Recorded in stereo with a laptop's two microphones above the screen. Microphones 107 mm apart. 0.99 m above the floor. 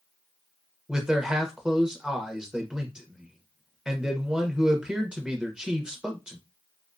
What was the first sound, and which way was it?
A man speaking, 5° right (ahead or behind).